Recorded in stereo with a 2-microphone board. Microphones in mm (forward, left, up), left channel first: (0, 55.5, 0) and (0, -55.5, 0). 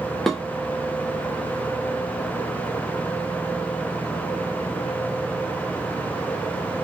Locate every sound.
0.3 s dishes clattering: 5° left (ahead or behind), 0.7 m